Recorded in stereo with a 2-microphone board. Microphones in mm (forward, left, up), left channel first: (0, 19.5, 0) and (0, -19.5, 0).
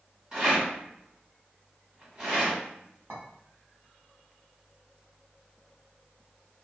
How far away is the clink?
About 1.2 m.